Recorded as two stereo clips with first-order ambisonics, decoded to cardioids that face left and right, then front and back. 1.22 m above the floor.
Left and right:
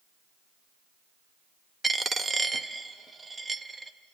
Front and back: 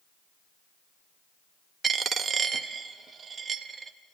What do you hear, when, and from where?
1.8 s a dropped coin: 150° right, 0.6 m